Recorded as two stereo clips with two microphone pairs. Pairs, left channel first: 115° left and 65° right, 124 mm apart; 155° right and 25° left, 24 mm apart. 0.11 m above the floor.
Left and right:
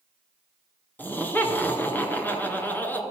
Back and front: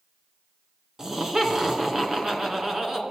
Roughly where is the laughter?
Ahead left.